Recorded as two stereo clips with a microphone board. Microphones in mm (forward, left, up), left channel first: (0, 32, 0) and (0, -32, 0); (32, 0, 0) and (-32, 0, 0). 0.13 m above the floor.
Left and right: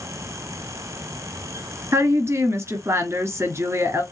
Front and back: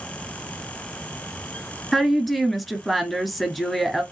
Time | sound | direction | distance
1.9 | a woman speaking | 90° right | 1.4 m